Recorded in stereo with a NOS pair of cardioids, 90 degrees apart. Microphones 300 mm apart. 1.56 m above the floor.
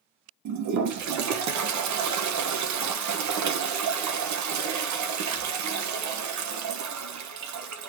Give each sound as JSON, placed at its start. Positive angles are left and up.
{"t": 0.5, "sound": "a toilet flushing", "azimuth_deg": -70, "distance_m": 1.3}